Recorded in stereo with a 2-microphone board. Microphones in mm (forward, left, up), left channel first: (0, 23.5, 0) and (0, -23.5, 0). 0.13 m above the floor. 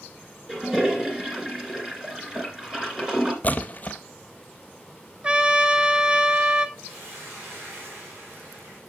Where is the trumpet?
20° right (ahead or behind), 0.6 m.